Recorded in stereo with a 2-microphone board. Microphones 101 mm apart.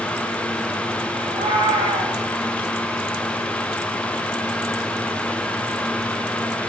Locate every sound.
1.2 s a cat meowing: 70° right (ahead or behind), 3 m